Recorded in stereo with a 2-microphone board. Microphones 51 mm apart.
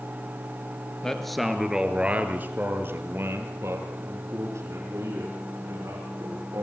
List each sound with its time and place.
1.0 s a man speaking: 10° left (ahead or behind), 2.5 m; by 6.6 s 75° right (ahead or behind), 8 m